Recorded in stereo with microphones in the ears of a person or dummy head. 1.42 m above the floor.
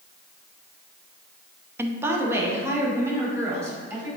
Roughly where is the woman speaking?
Centre.